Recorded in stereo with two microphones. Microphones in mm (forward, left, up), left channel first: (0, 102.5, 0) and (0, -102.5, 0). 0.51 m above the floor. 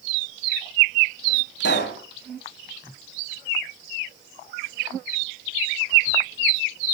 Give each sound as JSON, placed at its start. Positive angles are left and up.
{"t": 1.6, "sound": "a pop", "side_deg": 65, "distance_m": 2.0}